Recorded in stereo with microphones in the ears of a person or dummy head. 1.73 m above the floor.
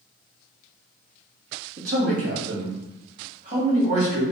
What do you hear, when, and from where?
1.8 s a man speaking: 85° right, 1.0 m; by 4.2 s 40° right (ahead or behind), 1.6 m